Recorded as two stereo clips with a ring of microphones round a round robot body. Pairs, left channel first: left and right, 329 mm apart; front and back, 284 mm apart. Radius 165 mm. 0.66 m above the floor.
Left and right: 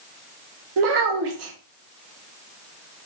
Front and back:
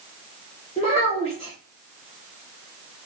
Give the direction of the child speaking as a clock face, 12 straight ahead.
2 o'clock.